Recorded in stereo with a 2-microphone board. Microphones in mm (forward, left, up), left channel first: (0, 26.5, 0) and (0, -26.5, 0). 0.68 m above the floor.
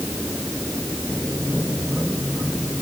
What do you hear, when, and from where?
Only background noise.